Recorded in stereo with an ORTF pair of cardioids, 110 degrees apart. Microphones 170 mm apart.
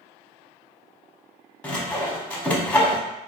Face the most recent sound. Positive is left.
turn(degrees=10)